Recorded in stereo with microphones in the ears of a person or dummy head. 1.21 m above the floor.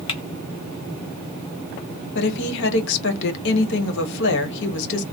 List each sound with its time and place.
0.1 s typing on a keyboard: 25° left (ahead or behind), 0.6 m
2.1 s a woman speaking: 70° left (ahead or behind), 1.1 m